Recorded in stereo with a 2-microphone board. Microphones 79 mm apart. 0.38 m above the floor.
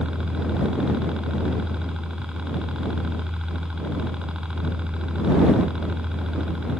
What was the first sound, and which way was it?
A helicopter, 10° right (ahead or behind).